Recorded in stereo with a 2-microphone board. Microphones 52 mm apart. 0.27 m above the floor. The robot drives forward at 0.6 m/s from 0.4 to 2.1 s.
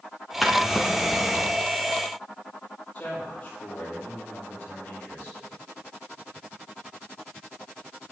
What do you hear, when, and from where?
0.4 s a drawer: 5° right (ahead or behind), 2.0 m
3.0 s a man speaking: 30° left (ahead or behind), 7.5 m